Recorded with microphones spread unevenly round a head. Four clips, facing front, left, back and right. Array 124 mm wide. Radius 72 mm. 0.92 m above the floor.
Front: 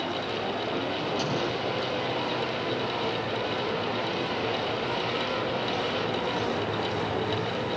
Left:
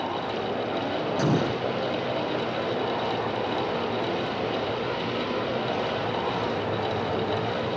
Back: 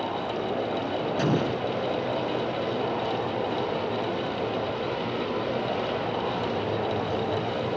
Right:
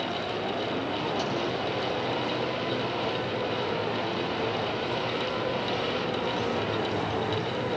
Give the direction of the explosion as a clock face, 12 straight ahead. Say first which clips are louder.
Left 4 dB, back 4 dB; 8 o'clock.